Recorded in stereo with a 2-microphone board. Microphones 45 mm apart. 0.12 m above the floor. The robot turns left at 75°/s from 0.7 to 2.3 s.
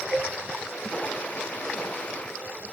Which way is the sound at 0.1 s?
45° left (ahead or behind).